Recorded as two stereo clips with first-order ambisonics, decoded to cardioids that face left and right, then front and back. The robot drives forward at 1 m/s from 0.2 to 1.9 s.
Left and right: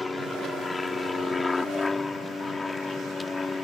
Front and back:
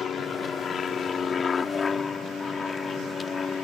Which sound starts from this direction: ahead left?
An aircraft, at 0.0 s.